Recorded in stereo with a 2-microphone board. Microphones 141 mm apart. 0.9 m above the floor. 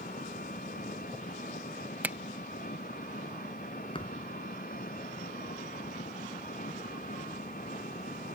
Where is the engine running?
85° left.